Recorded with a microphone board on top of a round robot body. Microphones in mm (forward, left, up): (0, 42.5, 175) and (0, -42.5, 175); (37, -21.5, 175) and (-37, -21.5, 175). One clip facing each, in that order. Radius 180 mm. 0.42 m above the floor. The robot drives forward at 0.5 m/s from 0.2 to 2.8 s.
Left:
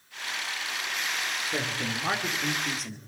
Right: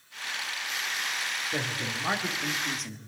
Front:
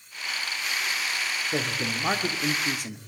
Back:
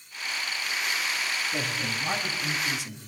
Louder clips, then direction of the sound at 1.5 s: Left 2 dB, front 2 dB; straight ahead.